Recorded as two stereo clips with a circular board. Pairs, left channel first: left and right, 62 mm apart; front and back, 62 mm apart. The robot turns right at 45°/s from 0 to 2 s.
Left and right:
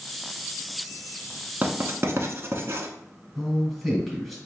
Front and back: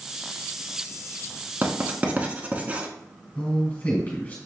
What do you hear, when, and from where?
1.6 s writing: 135° right, 0.6 m; by 2.9 s 120° right, 0.6 m
3.4 s a man speaking: straight ahead, 1.8 m